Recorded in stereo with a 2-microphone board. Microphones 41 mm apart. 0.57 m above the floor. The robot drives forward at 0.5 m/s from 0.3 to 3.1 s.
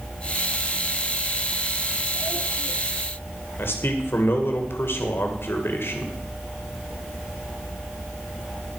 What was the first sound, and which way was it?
A man speaking, 65° left (ahead or behind).